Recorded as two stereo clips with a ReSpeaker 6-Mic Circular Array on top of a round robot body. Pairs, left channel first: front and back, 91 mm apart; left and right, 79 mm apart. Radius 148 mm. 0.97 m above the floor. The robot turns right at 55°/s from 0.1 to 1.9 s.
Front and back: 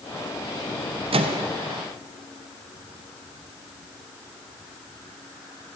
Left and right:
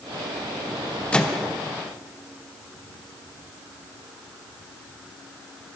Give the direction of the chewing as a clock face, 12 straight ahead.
No chewing in this recording.